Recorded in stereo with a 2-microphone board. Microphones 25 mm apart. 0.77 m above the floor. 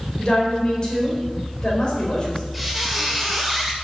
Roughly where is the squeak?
Centre.